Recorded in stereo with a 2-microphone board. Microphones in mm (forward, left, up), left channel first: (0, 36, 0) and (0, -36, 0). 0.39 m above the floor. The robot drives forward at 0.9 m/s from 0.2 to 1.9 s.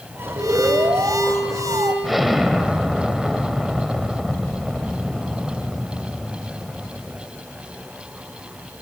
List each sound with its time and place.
0.4 s an alarm: 60° right (ahead or behind), 3.5 m; by 1.9 s 55° right (ahead or behind), 3.5 m
2.0 s an explosion: centre (ahead or behind), 1.8 m